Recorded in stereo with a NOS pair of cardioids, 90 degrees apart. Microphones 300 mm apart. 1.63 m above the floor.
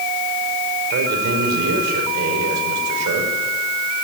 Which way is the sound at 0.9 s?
70° right.